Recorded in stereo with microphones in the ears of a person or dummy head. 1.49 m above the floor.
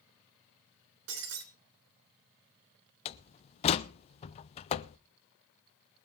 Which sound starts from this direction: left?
A door slam, at 3.0 s.